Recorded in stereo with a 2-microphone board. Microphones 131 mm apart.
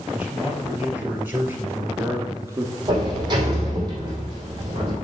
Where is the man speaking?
10° right (ahead or behind), 3 m; by 3.1 s 30° right (ahead or behind), 1.4 m.